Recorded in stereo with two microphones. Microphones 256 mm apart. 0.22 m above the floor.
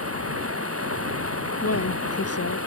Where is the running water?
65° right (ahead or behind).